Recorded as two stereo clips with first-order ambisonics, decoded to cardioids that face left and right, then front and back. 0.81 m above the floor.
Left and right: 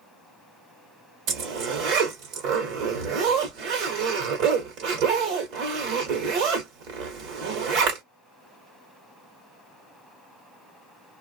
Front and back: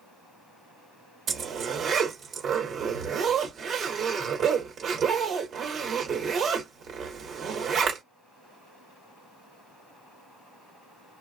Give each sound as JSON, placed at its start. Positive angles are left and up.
{"t": 1.3, "sound": "a zipper", "azimuth_deg": -115, "distance_m": 1.3}